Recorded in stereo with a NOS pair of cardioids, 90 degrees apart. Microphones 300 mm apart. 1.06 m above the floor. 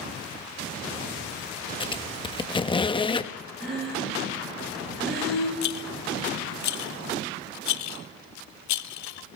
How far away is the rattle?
About 0.7 m.